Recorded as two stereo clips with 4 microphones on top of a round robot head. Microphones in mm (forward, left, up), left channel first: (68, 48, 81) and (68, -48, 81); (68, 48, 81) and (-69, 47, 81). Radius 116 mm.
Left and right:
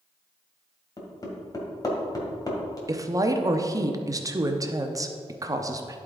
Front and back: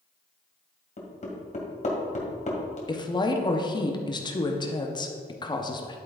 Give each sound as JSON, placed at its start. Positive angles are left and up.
{"t": 1.0, "sound": "hammering", "azimuth_deg": 35, "distance_m": 2.0}
{"t": 2.9, "sound": "a woman speaking", "azimuth_deg": -45, "distance_m": 0.9}